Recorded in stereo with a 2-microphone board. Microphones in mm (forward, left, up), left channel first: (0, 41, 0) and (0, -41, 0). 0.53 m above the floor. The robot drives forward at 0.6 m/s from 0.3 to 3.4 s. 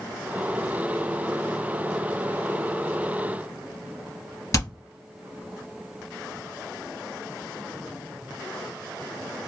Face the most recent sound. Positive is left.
turn(degrees=40)  # may be behind; listen again after turning